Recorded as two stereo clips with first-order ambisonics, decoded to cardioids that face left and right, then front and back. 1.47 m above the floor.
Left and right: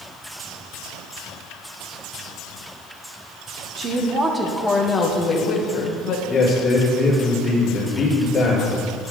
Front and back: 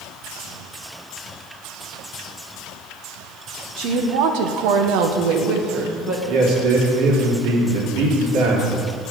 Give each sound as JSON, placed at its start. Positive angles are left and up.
{"t": 3.8, "sound": "a woman speaking", "azimuth_deg": -150, "distance_m": 1.4}
{"t": 6.3, "sound": "a man speaking", "azimuth_deg": 155, "distance_m": 3.0}